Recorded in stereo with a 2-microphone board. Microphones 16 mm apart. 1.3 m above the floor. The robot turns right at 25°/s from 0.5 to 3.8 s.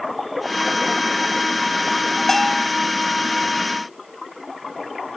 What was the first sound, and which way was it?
A bell, 25° left (ahead or behind).